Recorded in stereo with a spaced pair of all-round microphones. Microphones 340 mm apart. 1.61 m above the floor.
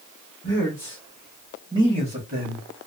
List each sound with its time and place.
0.4 s a man speaking: 35° left (ahead or behind), 1.0 m; by 2.6 s 40° right (ahead or behind), 1.3 m